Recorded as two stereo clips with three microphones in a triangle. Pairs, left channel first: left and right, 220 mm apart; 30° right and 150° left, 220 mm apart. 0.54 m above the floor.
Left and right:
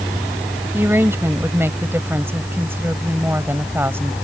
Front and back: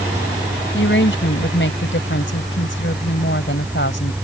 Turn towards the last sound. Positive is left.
turn(degrees=-10)